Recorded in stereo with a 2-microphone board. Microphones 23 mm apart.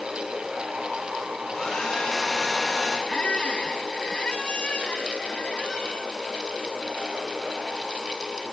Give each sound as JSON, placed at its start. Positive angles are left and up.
{"t": 1.5, "sound": "a hair dryer", "side_deg": 20, "distance_m": 10.0}
{"t": 3.1, "sound": "a squeak", "side_deg": 45, "distance_m": 2.0}